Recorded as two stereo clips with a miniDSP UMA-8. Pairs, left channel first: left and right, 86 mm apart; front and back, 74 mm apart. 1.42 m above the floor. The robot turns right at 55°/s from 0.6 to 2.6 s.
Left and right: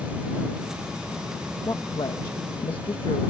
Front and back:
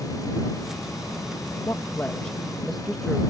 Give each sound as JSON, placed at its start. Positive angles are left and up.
{"t": 1.6, "sound": "a woman speaking", "azimuth_deg": 40}